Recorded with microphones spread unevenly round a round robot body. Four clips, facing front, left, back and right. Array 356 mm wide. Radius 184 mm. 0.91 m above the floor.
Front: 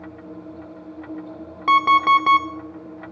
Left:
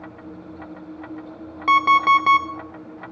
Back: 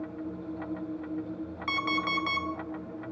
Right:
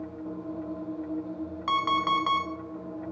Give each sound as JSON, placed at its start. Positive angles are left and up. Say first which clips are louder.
{"t": 1.7, "sound": "an alarm clock", "louder": "left 11 dB, front 17 dB", "azimuth_deg": 30, "distance_m": 1.3}